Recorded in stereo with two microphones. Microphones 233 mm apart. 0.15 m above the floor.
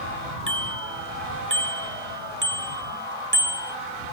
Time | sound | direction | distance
0.5 | a bicycle bell | 55° right (ahead or behind) | ?